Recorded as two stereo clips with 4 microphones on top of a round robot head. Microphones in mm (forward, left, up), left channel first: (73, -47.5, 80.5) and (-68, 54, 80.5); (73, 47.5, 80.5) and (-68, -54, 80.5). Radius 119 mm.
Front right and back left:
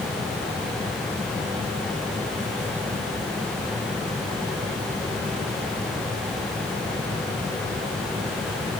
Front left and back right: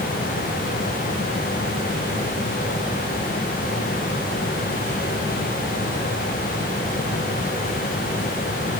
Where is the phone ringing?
I don't hear a phone ringing.